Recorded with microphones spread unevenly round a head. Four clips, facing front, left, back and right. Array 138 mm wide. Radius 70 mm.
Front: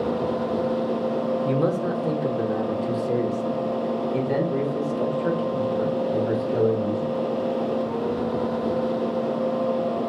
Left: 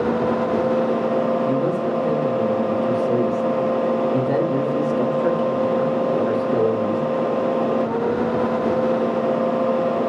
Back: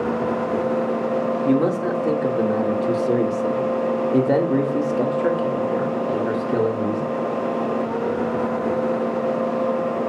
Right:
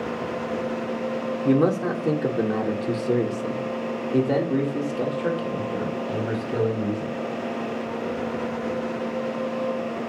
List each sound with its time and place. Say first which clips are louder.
1.4 s a man speaking: even, back 4 dB; 130° right, 2.5 m; by 7.2 s 150° left, 3.5 m